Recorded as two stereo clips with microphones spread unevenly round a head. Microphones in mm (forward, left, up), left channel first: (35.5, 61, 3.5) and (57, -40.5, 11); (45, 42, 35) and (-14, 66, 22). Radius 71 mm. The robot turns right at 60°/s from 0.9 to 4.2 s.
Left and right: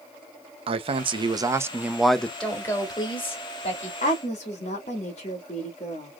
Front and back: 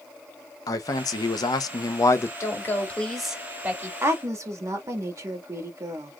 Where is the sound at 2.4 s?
20° left, 2.5 m; by 3.9 s 110° left, 2.5 m.